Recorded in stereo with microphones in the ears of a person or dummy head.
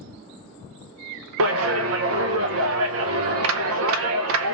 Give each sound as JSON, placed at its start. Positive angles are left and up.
{"t": 1.4, "sound": "a clap", "side_deg": -75, "distance_m": 0.6}